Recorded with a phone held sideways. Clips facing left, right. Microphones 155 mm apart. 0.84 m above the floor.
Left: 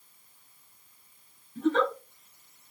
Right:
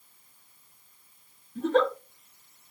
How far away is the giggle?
About 2 m.